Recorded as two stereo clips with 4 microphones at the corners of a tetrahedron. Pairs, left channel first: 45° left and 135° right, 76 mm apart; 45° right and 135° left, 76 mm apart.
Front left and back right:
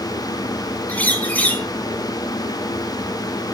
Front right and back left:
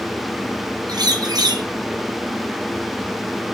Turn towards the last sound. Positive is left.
turn(degrees=115)